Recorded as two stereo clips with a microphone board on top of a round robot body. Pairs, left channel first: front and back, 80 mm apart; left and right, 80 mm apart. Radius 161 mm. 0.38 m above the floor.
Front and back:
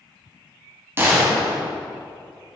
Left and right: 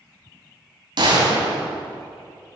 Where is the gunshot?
120° right, 3.5 m.